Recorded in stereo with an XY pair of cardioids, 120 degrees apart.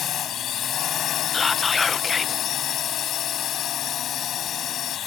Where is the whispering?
20° left.